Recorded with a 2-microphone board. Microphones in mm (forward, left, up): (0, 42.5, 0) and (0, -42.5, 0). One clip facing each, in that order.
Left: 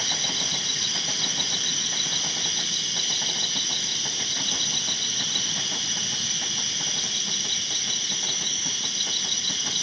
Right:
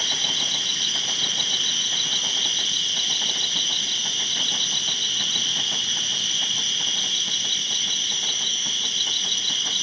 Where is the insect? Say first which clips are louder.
Right 1 dB; 20° left (ahead or behind), 0.8 m.